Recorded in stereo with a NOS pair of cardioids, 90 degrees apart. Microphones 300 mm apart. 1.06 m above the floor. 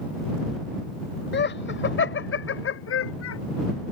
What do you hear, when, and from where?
1.3 s laughter: 35° left; by 3.4 s 50° left